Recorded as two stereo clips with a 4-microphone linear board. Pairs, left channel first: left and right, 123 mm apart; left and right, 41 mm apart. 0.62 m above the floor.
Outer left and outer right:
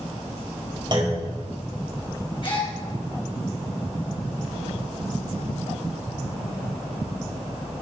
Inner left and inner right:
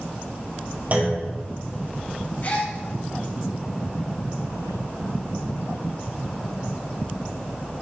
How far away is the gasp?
About 4 m.